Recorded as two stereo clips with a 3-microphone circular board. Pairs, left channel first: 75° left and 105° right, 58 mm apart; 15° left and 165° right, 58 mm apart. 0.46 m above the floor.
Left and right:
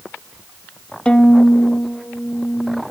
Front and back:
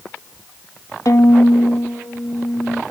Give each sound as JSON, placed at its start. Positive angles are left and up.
{"t": 1.1, "sound": "a violin", "azimuth_deg": 5, "distance_m": 1.0}